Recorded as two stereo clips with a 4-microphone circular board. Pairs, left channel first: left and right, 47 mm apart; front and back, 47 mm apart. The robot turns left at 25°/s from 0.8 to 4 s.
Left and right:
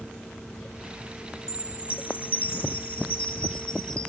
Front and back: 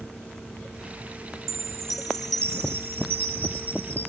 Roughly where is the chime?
Left.